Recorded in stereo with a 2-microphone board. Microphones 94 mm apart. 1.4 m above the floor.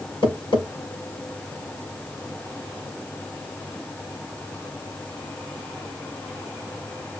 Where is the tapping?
65° left (ahead or behind), 5 m.